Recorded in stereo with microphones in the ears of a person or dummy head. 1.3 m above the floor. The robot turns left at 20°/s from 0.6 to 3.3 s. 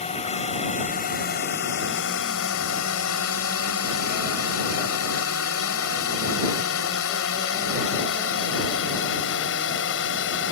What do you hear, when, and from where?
0.0 s a drone: 30° left (ahead or behind); by 10.5 s 65° left (ahead or behind)